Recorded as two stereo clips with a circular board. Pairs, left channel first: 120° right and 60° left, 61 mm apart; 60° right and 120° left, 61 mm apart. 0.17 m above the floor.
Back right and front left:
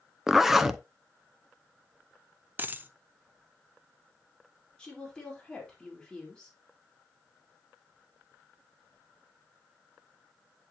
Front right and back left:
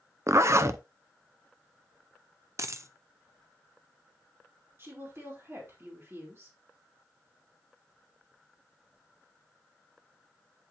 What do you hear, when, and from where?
0.3 s a zipper: 145° left, 0.6 m
2.6 s a dropped coin: 110° left, 0.6 m
4.8 s a woman speaking: 165° left, 4 m